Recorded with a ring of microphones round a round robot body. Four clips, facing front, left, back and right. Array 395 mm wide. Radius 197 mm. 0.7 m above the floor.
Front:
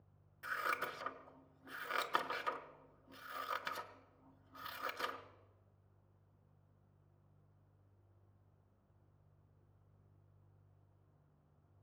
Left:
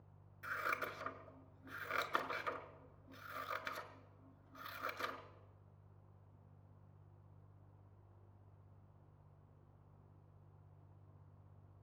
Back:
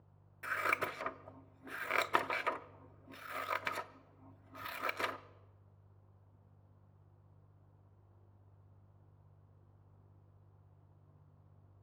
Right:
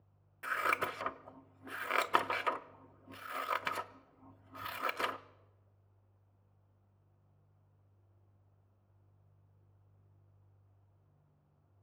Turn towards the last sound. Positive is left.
turn(degrees=-130)